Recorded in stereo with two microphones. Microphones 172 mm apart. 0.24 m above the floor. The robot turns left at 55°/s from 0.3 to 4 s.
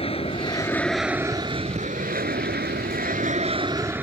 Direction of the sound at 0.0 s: 35° left (ahead or behind).